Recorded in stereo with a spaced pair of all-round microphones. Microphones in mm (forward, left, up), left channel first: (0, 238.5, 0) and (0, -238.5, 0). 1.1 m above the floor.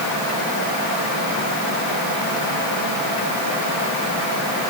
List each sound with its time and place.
Only background noise.